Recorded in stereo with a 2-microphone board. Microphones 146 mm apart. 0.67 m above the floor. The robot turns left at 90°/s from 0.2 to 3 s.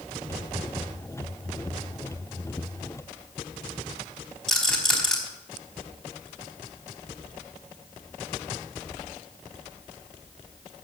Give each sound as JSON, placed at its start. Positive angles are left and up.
{"t": 4.5, "sound": "a rattle", "side_deg": 5, "distance_m": 4.0}